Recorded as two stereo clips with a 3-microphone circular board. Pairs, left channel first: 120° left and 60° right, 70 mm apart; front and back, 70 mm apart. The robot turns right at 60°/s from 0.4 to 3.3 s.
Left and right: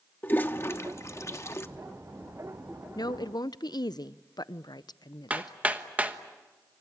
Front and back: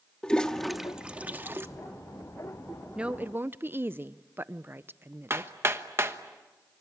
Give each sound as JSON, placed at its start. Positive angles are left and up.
{"t": 0.2, "sound": "a toilet flushing", "azimuth_deg": 75, "distance_m": 1.0}
{"t": 3.0, "sound": "a woman speaking", "azimuth_deg": 105, "distance_m": 0.6}
{"t": 5.3, "sound": "hammering", "azimuth_deg": -125, "distance_m": 1.2}